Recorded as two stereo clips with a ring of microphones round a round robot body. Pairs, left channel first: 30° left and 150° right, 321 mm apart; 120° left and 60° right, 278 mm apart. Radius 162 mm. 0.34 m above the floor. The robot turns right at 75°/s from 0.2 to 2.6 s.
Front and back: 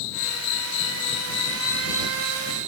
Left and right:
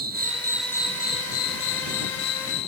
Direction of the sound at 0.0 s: Straight ahead.